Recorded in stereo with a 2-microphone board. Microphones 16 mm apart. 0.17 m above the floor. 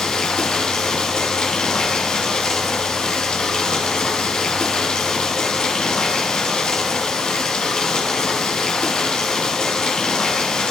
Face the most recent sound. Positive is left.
turn(degrees=65)  # may be behind; listen again after turning